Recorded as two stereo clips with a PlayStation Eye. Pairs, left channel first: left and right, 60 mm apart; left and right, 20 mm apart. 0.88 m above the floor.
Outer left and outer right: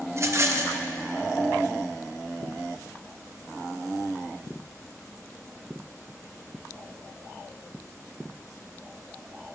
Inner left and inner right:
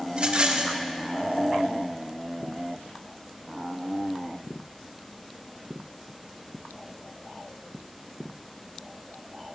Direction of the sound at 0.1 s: 45° right (ahead or behind).